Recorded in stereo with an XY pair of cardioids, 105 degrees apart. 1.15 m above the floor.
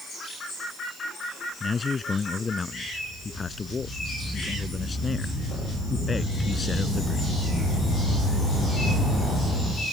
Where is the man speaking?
30° left.